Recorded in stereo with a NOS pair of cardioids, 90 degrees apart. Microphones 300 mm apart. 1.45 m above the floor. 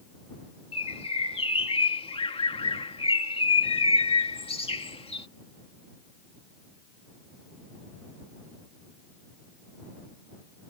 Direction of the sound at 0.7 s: 20° left.